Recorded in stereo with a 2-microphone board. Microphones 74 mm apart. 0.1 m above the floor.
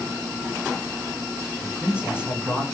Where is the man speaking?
15° right (ahead or behind), 5.5 m.